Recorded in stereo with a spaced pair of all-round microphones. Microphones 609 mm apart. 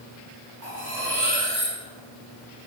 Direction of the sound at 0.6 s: 80° right.